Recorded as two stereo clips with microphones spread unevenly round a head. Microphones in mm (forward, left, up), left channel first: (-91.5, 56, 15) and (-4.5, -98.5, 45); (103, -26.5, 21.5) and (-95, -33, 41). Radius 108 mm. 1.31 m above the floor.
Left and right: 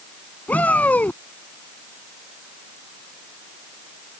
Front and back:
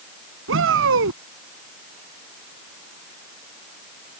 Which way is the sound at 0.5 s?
155° right.